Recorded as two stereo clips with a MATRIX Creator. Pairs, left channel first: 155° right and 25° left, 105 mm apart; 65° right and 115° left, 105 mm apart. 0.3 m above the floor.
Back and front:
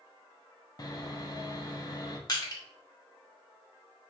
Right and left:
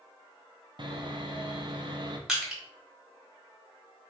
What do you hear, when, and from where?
0.8 s sawing: 150° left, 0.7 m
2.3 s crushing: 165° right, 1.5 m